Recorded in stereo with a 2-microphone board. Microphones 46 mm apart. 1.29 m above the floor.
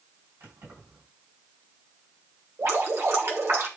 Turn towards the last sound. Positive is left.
turn(degrees=-70)  # may be behind; listen again after turning